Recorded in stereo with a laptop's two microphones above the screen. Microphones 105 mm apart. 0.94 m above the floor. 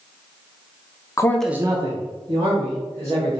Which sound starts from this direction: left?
A man speaking, at 1.2 s.